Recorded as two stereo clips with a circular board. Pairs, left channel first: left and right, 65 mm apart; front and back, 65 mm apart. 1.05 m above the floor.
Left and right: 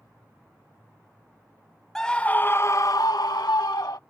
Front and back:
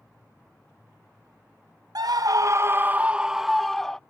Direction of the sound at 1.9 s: 170° left.